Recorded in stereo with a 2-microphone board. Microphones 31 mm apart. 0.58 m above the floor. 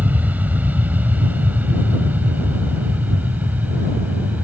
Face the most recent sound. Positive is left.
turn(degrees=-65)  # may be behind; listen again after turning